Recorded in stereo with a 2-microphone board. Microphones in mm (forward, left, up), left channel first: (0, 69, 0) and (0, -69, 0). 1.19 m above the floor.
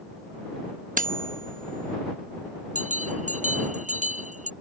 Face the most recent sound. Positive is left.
turn(degrees=-65)  # may be behind; listen again after turning